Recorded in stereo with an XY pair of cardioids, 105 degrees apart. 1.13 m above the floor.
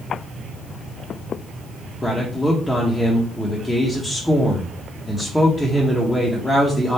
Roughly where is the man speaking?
Ahead.